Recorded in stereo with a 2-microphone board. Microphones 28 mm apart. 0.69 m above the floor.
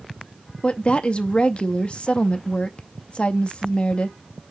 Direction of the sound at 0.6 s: 40° left (ahead or behind).